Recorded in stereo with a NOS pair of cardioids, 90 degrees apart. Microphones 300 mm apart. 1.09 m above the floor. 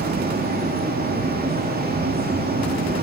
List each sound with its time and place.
0.0 s a fan: 30° right, 3 m